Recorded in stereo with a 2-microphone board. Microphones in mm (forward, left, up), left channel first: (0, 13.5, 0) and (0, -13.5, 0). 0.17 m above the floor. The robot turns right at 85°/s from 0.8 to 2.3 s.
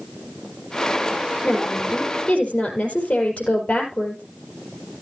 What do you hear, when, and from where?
1.4 s a woman speaking: 50° left, 4.5 m; by 4.2 s 120° left, 4.5 m